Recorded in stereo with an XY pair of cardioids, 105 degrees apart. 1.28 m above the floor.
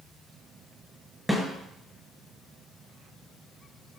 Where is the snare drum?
Straight ahead, 5.5 m.